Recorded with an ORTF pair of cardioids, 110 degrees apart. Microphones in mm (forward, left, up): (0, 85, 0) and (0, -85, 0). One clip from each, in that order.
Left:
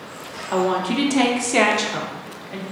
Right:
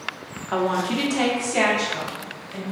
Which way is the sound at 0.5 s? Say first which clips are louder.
Left 2 dB; 5° right.